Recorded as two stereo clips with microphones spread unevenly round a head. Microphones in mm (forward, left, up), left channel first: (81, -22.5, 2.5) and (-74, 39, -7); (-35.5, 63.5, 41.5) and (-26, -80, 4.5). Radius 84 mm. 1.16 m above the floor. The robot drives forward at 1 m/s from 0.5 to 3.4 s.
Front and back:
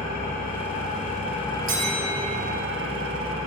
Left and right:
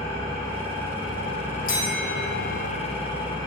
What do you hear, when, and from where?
0.0 s an engine running: 20° left, 1.8 m; by 3.5 s 155° left, 1.4 m
1.7 s a bell: 125° left, 1.1 m; by 2.5 s 150° left, 1.7 m